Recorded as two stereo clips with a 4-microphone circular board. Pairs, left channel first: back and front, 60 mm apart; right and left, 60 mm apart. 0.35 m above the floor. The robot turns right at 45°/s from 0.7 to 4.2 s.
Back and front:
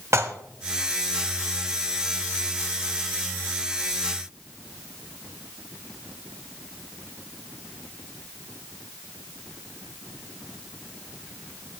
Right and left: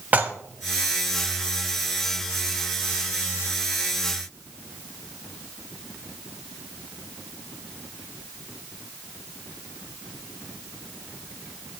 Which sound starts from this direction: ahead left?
Dishes clattering, at 0.1 s.